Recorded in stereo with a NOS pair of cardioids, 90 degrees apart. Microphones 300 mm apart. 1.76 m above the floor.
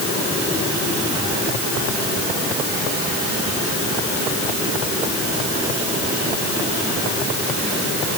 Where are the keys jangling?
I don't hear keys jangling.